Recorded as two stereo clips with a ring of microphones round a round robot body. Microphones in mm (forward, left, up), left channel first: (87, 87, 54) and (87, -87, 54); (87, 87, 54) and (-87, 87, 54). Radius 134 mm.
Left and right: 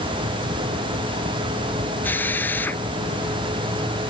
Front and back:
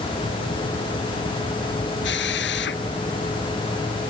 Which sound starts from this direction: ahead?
A drill, at 2.0 s.